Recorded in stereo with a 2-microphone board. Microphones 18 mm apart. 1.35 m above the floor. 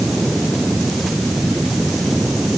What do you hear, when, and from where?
Only background noise.